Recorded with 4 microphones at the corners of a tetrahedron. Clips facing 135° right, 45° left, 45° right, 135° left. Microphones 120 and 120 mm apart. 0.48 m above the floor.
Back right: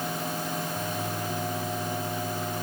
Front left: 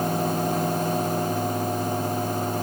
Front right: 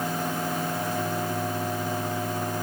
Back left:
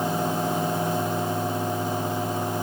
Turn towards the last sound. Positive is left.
No sound to turn to.